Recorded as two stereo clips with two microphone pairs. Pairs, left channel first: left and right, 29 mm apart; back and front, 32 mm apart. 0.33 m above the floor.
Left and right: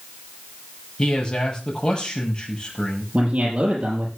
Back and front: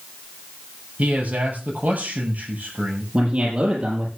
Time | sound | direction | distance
1.0 | a man speaking | 30° left | 6.5 m
3.1 | a man speaking | 50° right | 7 m